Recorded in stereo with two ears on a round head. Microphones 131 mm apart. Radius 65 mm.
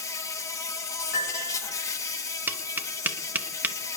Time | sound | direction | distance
0.0 | an insect | 20° left (ahead or behind) | 1.0 m
1.1 | a piano | 60° left (ahead or behind) | 3.5 m
2.5 | tapping | 10° right (ahead or behind) | 0.6 m